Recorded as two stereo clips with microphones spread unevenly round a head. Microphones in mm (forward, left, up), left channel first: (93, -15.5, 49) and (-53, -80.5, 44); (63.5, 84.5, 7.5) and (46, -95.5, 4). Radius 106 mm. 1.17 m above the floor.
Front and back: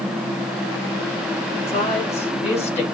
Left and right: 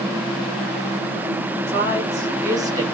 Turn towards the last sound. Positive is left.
turn(degrees=-25)